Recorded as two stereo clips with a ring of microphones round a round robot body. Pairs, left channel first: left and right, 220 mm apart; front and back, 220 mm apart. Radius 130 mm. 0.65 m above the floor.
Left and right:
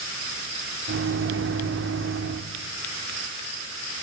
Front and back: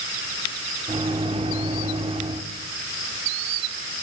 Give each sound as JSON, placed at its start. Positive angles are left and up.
{"t": 0.9, "sound": "a microwave", "azimuth_deg": -115, "distance_m": 1.6}